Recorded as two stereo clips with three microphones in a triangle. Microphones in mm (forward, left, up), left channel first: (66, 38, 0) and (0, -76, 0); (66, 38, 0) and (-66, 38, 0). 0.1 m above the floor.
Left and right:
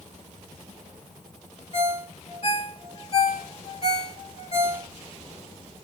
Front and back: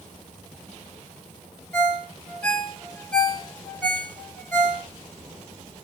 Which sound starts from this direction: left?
A ringtone, at 1.7 s.